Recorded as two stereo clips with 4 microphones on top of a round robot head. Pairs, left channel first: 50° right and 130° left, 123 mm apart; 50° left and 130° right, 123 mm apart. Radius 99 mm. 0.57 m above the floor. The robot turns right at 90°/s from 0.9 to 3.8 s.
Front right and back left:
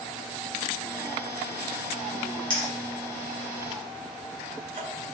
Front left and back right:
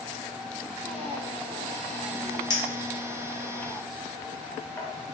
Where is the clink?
5° right, 1.2 m; by 4.9 s 115° left, 1.2 m.